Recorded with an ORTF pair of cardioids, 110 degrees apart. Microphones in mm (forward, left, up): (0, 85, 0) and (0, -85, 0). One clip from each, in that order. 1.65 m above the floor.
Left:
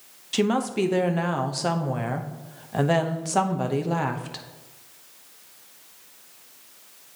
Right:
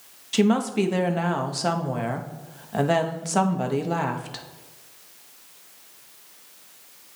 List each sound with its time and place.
0.3 s a woman speaking: straight ahead, 0.9 m